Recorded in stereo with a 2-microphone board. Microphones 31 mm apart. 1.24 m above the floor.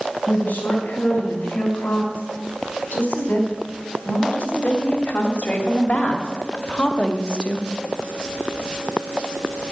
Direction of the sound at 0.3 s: 85° left.